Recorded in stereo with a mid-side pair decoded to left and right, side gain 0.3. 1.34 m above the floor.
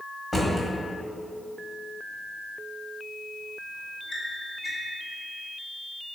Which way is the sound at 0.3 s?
40° left.